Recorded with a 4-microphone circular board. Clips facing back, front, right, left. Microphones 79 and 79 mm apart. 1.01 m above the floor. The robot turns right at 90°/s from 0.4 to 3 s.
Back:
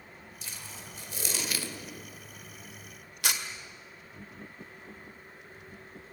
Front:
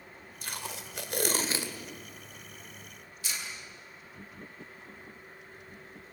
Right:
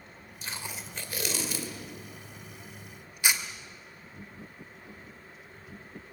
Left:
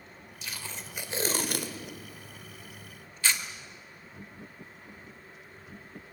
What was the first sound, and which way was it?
Tape being pulled, 40° right.